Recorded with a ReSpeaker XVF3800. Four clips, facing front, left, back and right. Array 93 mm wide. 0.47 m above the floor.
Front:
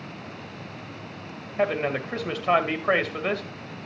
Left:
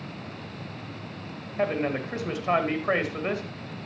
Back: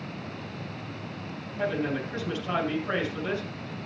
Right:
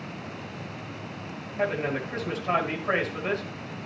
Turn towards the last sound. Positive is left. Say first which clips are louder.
# left 1 dB, front 4 dB
turn(degrees=10)